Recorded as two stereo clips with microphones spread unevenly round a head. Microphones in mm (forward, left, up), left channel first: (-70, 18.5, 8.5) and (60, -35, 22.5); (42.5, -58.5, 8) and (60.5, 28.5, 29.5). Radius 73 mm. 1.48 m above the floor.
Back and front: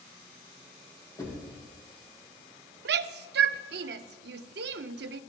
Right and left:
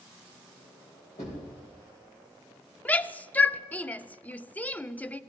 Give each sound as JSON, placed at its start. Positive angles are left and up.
{"t": 1.2, "sound": "knocking", "azimuth_deg": -135, "distance_m": 4.0}
{"t": 2.9, "sound": "a shout", "azimuth_deg": -30, "distance_m": 0.5}